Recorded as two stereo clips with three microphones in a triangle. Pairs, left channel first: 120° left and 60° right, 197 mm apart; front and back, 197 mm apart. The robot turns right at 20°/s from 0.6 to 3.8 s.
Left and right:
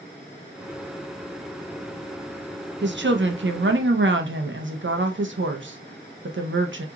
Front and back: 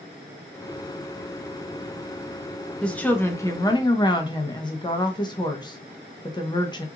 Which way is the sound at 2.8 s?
85° right.